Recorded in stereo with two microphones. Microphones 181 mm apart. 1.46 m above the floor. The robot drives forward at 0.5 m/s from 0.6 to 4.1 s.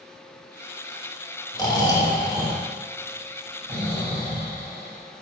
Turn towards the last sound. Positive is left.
turn(degrees=15)  # may be behind; listen again after turning